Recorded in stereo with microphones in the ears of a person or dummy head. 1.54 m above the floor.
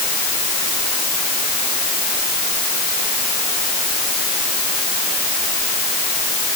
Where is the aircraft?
No aircraft in this recording.